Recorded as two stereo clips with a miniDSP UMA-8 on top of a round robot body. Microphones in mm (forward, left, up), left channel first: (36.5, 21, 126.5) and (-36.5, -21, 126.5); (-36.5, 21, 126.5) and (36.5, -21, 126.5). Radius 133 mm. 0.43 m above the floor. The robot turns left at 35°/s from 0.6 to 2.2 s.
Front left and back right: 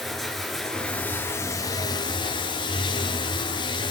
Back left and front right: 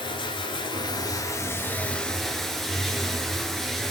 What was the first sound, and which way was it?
Running water, 120° left.